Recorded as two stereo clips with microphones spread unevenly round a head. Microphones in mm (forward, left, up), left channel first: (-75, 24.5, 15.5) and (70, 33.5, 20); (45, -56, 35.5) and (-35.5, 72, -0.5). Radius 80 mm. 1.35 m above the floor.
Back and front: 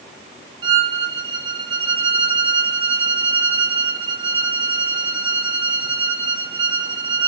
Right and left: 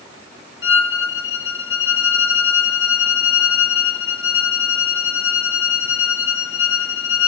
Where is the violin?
60° right, 0.6 m.